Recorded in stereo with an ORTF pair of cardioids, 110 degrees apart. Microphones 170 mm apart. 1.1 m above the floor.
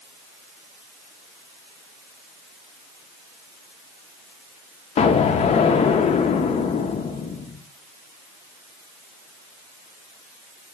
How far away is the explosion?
About 0.7 m.